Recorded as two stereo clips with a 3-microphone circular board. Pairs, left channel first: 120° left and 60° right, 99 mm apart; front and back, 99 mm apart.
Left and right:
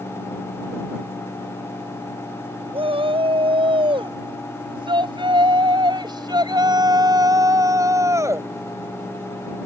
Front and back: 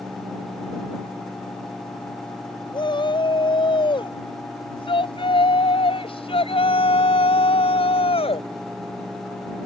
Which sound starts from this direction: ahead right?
A shout, at 2.7 s.